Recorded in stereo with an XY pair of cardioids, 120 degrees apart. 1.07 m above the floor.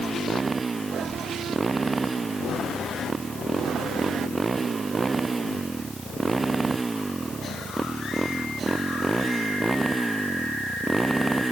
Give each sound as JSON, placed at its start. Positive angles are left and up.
{"t": 0.0, "sound": "a motorcycle", "azimuth_deg": -25}